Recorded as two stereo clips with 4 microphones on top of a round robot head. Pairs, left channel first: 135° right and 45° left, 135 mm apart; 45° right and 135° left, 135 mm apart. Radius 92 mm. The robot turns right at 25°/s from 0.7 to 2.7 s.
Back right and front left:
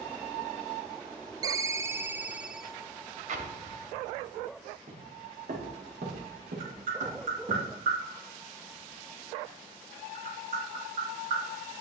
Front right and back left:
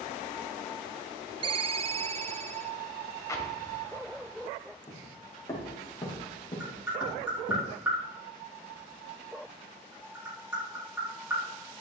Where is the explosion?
20° left, 2 m.